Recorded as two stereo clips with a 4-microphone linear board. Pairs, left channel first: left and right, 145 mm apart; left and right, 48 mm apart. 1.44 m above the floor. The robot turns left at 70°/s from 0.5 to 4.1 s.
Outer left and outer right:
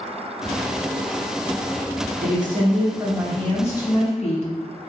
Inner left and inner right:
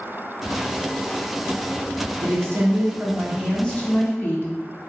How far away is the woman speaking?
About 0.7 m.